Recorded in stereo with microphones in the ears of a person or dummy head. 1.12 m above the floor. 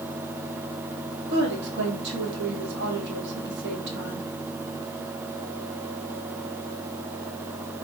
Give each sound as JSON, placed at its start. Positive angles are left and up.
{"t": 1.3, "sound": "a woman speaking", "side_deg": -70, "distance_m": 2.5}